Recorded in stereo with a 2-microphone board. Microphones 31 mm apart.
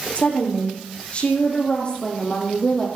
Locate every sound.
0.1 s a woman speaking: 50° left (ahead or behind), 7.5 m; by 2.9 s 30° left (ahead or behind), 6.5 m